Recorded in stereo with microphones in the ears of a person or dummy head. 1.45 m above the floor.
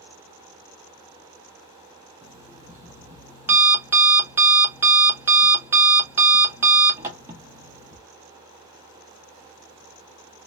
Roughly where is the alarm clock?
Centre.